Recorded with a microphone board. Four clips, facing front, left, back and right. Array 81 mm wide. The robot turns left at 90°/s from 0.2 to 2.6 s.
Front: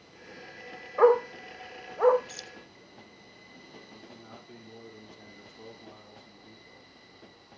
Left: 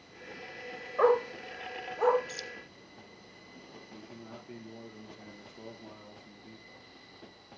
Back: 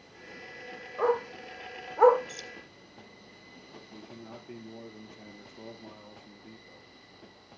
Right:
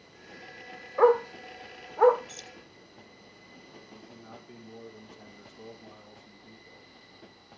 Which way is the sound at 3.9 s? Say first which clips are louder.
Left 2 dB, back 5 dB; 150° left.